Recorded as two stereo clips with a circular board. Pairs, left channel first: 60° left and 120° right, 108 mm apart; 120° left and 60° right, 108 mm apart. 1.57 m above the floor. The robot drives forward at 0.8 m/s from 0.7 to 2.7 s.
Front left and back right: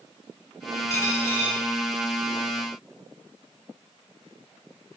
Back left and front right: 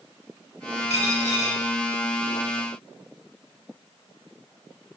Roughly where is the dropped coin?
Behind left.